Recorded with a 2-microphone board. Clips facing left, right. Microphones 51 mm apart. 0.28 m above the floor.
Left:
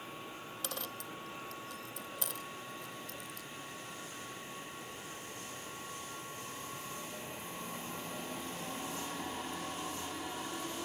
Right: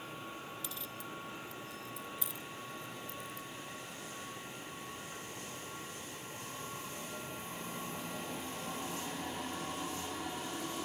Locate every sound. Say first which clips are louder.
0.6 s a dropped coin: left 2 dB; 65° left (ahead or behind)